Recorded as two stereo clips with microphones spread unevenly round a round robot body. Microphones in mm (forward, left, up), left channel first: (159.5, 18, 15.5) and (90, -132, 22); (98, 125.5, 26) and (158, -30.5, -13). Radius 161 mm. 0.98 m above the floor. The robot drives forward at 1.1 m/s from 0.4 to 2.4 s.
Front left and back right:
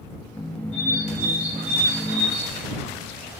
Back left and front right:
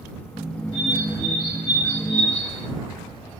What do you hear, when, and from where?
0.7 s a bird: 100° right, 2.5 m; by 2.7 s 135° right, 3.5 m